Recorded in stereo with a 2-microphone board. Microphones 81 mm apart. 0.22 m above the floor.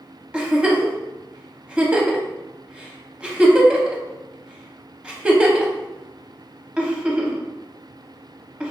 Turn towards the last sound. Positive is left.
turn(degrees=-15)  # may be behind; listen again after turning